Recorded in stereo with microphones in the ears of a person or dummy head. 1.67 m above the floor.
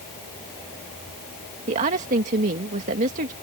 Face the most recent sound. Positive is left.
turn(degrees=-45)  # may be behind; listen again after turning